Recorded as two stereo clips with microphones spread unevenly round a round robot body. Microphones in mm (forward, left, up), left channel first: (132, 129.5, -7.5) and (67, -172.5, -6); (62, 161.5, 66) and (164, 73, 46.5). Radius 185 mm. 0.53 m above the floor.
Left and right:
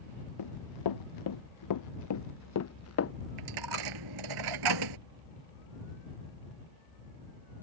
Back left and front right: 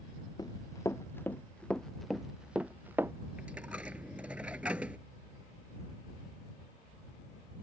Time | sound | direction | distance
0.4 | running footsteps | 80° left | ?
3.4 | a dropped coin | 130° right | ?